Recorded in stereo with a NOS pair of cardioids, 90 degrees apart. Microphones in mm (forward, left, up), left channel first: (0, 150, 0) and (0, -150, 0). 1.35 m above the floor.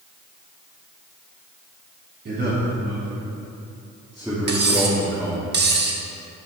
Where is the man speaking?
35° right, 1.9 m; by 5.5 s straight ahead, 3 m.